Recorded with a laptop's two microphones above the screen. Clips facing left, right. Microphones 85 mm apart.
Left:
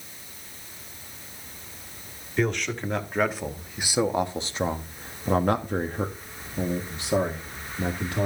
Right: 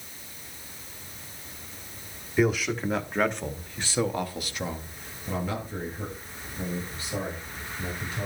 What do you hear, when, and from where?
2.4 s a man speaking: 5° right (ahead or behind), 1.7 m; by 8.3 s 75° left (ahead or behind), 1.9 m